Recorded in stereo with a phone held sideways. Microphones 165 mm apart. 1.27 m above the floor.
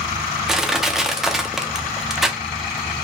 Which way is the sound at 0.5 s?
5° right (ahead or behind).